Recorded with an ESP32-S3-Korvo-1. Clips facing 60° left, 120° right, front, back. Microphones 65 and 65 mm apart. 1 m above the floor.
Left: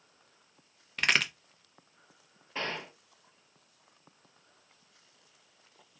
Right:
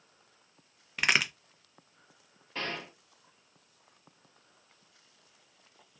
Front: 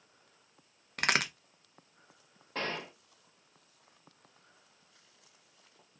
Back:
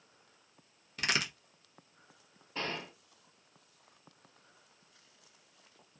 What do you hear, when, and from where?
1.0 s a crack: 35° right, 0.7 m
2.5 s a gunshot: 20° right, 1.3 m